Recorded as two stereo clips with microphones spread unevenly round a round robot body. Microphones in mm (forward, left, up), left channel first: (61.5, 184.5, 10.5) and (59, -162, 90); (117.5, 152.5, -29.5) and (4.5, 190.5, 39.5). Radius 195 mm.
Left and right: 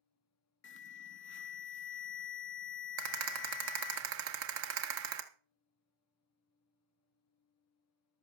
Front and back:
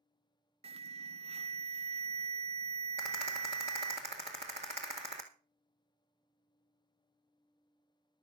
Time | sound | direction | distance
0.6 | an alarm | 95° left | 0.6 m
3.0 | a rattle | 145° right | 1.4 m